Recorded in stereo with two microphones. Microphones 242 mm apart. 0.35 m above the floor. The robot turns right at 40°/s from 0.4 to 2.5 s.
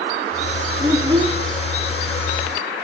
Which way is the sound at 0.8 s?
5° right (ahead or behind).